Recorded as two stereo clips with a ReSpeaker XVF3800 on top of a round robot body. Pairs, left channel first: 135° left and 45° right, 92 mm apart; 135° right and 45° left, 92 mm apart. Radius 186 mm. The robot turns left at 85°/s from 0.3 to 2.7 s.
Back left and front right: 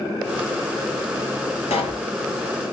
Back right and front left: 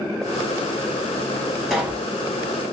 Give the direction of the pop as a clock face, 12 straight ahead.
8 o'clock.